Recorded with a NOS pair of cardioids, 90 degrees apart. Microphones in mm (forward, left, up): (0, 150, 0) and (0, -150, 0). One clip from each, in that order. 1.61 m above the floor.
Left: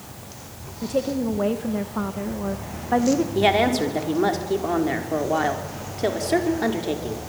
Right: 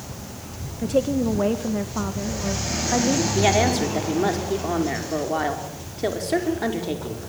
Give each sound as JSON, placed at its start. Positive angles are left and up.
{"t": 0.8, "sound": "a woman speaking", "azimuth_deg": -25, "distance_m": 1.6}
{"t": 3.4, "sound": "a woman speaking", "azimuth_deg": 10, "distance_m": 5.0}